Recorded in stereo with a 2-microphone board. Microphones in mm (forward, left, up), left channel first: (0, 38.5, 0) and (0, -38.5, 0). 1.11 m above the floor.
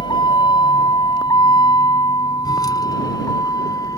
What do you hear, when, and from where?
0.0 s a vehicle: 80° left; by 4.0 s 50° left (ahead or behind)